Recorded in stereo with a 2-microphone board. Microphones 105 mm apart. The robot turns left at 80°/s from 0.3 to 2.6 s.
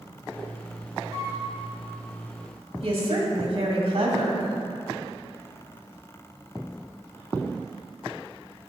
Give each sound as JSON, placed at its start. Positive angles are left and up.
{"t": 1.1, "sound": "a flute", "side_deg": -60, "distance_m": 1.7}
{"t": 2.8, "sound": "a woman speaking", "side_deg": -55, "distance_m": 1.8}